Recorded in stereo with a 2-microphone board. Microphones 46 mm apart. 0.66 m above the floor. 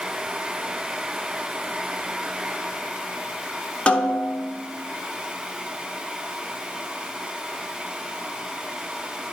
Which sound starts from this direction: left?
A snare drum, at 3.9 s.